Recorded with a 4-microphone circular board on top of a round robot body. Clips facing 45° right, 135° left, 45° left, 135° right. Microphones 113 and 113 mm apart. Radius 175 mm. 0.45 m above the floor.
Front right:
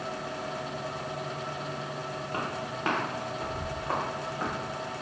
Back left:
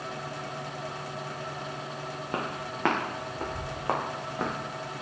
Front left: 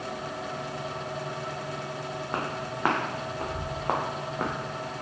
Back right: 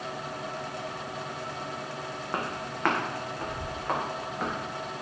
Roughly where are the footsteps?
Behind left.